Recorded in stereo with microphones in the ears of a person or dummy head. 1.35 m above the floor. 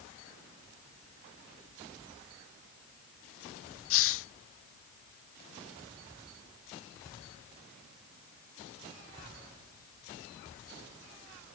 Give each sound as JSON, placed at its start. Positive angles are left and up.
{"t": 3.9, "sound": "a hiss", "side_deg": 60}